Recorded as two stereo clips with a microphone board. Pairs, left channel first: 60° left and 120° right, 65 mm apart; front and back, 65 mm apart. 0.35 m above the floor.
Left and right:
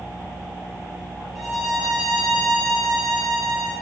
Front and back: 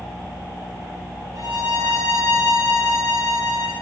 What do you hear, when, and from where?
1.4 s a violin: 150° left, 4 m